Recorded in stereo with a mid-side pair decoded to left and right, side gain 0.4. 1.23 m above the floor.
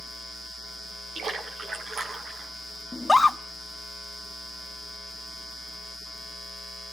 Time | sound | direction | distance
1.1 | a splash | 60° right | 5.5 m
2.9 | a scream | 15° left | 1.4 m